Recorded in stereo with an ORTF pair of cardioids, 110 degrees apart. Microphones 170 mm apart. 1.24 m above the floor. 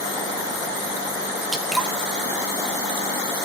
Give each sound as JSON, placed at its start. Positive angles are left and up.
{"t": 1.5, "sound": "dripping", "azimuth_deg": 0, "distance_m": 0.7}